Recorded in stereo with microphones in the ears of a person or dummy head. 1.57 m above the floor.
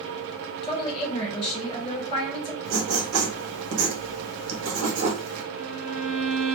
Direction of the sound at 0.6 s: 30° left (ahead or behind).